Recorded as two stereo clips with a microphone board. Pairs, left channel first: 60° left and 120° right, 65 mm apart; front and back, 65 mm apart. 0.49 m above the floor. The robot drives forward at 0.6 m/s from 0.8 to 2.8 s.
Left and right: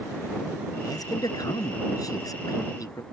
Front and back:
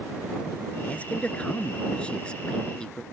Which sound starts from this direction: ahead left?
A man speaking, at 0.8 s.